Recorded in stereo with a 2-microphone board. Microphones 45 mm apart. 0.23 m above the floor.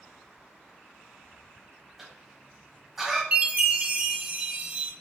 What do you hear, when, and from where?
2.0 s a cough: 5° right (ahead or behind), 1.0 m
3.3 s a chime: 30° right (ahead or behind), 0.6 m